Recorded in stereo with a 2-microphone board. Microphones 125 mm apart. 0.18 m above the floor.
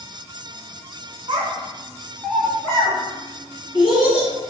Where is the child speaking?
45° right (ahead or behind), 0.9 m; by 4.3 s 50° left (ahead or behind), 1.6 m.